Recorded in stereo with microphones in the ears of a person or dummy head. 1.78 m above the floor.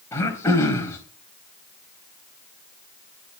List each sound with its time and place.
0.1 s throat clearing: 15° left (ahead or behind), 3 m